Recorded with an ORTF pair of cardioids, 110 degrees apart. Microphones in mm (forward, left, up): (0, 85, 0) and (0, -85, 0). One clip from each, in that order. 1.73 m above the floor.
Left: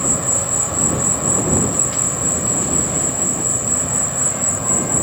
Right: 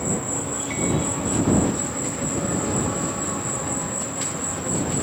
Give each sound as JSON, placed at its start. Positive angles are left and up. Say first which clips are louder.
{"t": 0.0, "sound": "an insect", "louder": "left 6 dB", "azimuth_deg": 60}